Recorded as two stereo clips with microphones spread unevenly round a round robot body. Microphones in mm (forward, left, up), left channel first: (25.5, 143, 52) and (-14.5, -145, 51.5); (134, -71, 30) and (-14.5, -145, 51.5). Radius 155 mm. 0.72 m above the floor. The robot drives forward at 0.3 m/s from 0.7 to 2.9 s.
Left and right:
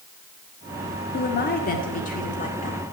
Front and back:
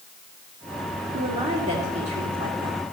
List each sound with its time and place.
1.1 s a woman speaking: 140° left, 1.6 m; by 2.8 s 150° left, 2 m